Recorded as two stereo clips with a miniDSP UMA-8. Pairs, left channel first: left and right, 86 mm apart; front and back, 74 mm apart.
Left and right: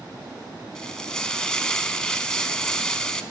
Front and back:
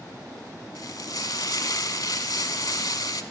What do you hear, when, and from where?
0.8 s frying: 10° left, 0.6 m